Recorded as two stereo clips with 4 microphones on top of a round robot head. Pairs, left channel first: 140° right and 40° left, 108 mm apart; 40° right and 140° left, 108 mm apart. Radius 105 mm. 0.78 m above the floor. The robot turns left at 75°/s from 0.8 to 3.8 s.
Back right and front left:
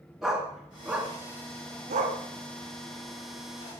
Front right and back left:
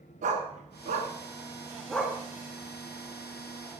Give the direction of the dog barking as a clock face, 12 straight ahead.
8 o'clock.